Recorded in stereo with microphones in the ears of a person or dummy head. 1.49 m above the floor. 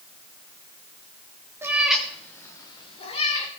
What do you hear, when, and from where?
1.6 s a cat meowing: 10° right (ahead or behind), 1.5 m; by 3.5 s 45° left (ahead or behind), 2.5 m